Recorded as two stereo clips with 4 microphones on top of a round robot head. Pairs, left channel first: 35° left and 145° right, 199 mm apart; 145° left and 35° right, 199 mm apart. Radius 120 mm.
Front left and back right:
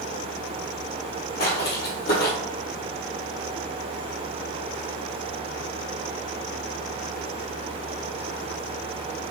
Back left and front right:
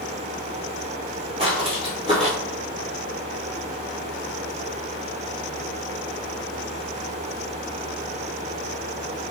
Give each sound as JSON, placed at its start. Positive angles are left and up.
{"t": 1.4, "sound": "footsteps", "azimuth_deg": 20, "distance_m": 1.2}